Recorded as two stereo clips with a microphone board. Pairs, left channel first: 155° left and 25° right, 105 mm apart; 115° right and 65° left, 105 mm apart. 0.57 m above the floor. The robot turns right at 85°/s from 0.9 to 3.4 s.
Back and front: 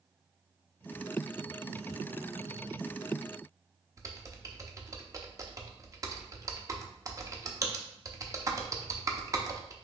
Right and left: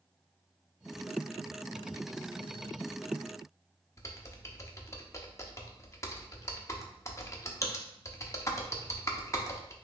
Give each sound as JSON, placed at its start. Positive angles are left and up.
{"t": 4.0, "sound": "typing on a keyboard", "azimuth_deg": -65, "distance_m": 0.6}